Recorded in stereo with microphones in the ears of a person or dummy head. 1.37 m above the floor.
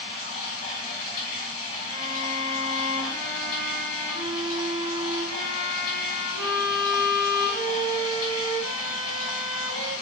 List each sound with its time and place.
0.0 s running water: 35° left (ahead or behind), 1.6 m
1.8 s a violin: 65° right (ahead or behind), 1.0 m